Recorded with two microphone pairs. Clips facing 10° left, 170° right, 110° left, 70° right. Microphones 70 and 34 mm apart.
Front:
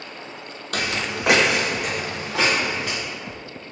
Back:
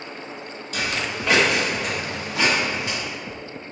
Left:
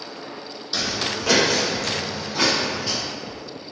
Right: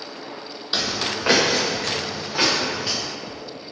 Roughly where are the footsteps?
Ahead.